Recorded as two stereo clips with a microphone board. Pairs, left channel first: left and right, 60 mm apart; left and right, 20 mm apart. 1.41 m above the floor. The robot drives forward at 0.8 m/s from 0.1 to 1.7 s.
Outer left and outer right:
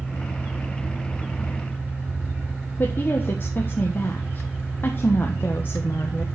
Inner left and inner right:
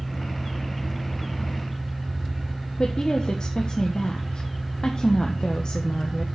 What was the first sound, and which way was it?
A woman speaking, 35° left (ahead or behind).